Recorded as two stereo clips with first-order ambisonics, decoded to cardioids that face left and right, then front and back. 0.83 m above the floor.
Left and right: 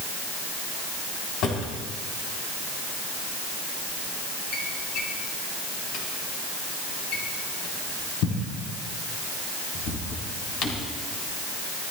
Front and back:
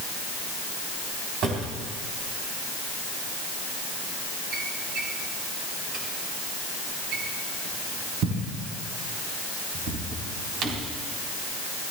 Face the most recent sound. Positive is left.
turn(degrees=130)